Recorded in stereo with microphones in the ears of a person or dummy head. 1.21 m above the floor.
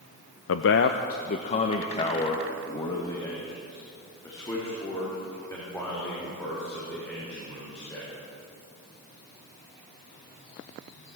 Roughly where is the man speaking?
Left.